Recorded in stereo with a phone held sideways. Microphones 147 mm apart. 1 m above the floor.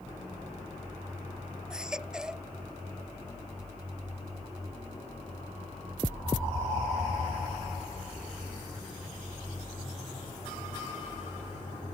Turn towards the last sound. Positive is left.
turn(degrees=-5)  # may be behind; listen again after turning